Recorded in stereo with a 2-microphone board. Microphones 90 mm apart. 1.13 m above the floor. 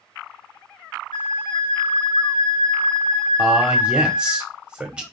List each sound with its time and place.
1.1 s a flute: 70° left (ahead or behind), 2.5 m
3.4 s a man speaking: 10° right (ahead or behind), 1.3 m